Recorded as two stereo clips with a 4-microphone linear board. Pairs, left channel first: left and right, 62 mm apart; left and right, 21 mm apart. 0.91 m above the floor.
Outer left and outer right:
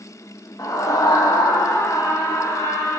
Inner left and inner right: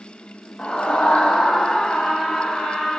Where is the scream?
60° left (ahead or behind), 0.8 m; by 3.0 s 50° left (ahead or behind), 2 m.